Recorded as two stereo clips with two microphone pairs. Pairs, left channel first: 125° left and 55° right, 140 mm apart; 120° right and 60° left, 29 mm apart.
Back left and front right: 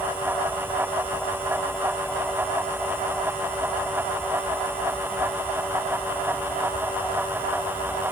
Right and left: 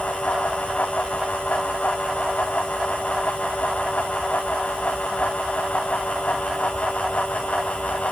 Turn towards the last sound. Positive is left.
No sound to turn to.